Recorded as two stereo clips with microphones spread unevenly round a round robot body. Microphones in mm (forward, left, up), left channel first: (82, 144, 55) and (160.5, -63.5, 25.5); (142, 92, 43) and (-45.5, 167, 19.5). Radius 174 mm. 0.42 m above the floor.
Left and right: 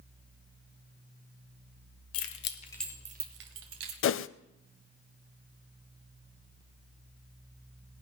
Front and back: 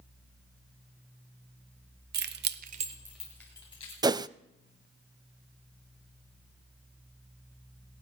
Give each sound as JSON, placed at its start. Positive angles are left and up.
{"t": 2.1, "sound": "keys jangling", "azimuth_deg": 130, "distance_m": 1.1}
{"t": 4.0, "sound": "a whoosh", "azimuth_deg": 80, "distance_m": 0.5}